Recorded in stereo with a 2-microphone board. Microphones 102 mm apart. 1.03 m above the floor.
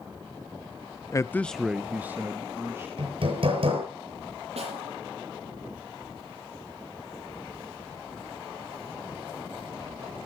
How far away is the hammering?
About 7.5 m.